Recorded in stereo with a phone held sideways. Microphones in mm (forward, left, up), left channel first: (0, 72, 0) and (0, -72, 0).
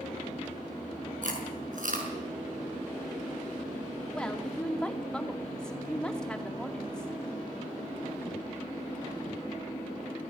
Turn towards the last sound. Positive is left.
turn(degrees=5)  # may be behind; listen again after turning